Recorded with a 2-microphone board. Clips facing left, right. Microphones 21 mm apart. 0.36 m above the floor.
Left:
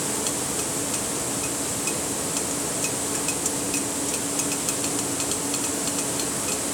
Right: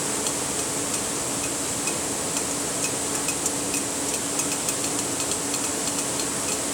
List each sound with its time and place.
Only background noise.